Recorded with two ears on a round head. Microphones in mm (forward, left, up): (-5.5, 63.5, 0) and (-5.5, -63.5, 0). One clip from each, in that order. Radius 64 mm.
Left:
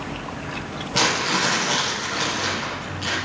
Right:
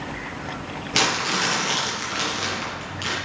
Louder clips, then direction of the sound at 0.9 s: Left 1 dB; 60° right (ahead or behind).